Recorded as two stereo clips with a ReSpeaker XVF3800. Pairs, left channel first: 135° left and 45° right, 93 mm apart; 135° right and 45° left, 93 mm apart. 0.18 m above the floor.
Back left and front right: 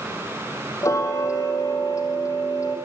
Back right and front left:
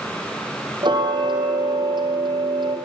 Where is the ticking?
80° left, 3.5 m.